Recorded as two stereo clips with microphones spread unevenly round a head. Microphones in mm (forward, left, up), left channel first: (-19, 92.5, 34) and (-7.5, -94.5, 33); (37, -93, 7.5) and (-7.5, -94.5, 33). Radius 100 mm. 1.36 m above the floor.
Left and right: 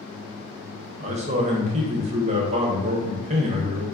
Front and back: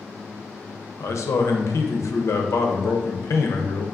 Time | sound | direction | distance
1.0 | a man speaking | 30° right | 0.5 m